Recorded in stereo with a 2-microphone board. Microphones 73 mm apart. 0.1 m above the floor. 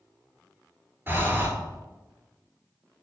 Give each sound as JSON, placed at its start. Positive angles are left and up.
{"t": 1.1, "sound": "breathing", "side_deg": -30, "distance_m": 0.7}